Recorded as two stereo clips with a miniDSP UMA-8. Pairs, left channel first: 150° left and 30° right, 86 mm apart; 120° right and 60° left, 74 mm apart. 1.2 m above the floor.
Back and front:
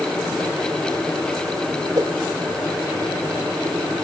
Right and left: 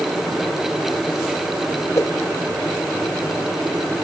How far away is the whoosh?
About 1.1 m.